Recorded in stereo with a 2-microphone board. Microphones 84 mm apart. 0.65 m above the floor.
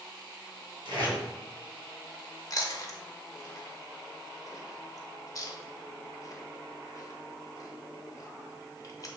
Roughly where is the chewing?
Left.